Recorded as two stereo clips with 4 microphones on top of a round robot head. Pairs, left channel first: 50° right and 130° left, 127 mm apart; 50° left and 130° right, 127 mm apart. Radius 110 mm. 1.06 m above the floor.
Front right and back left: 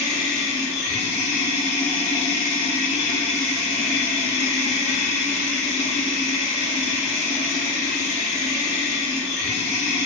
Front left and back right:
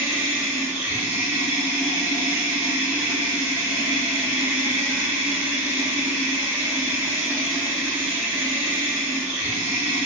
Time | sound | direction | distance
0.0 | running water | 55° right | 1.0 m